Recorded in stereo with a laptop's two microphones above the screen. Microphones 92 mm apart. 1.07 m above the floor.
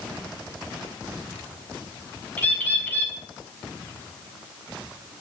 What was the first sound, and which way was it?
A bird, 20° left (ahead or behind).